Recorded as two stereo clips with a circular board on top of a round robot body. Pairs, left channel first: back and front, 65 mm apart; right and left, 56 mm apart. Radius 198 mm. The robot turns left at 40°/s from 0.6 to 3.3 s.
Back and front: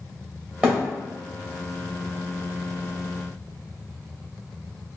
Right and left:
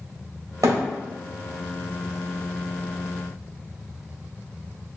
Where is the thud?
70° left, 1.9 m; by 0.8 s 60° left, 1.9 m.